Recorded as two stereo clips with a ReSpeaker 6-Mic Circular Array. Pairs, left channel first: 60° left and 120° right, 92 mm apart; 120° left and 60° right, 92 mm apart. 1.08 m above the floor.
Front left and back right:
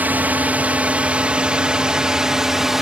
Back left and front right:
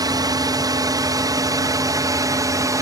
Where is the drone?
55° right; by 2.8 s 35° right.